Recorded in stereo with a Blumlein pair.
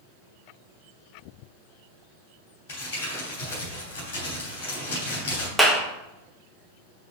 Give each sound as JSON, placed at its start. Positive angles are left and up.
{"t": 2.7, "sound": "crumpling", "azimuth_deg": 50, "distance_m": 3.5}
{"t": 5.6, "sound": "a clap", "azimuth_deg": 0, "distance_m": 1.2}